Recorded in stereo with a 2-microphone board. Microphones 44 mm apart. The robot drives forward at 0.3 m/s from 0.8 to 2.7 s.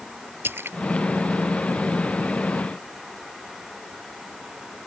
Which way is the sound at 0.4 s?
60° right (ahead or behind).